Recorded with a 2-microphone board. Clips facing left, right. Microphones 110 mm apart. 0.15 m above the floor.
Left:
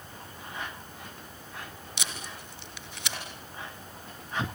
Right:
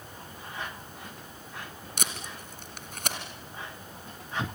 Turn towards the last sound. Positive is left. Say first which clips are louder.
# right 3 dB
turn(degrees=-50)  # may be behind; listen again after turning